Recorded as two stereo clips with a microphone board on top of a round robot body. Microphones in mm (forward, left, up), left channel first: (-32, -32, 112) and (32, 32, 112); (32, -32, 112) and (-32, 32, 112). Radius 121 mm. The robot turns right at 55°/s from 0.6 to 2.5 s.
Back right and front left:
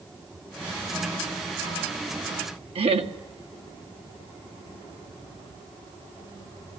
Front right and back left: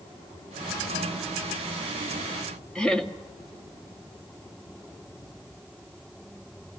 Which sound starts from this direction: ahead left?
Laughter, at 2.8 s.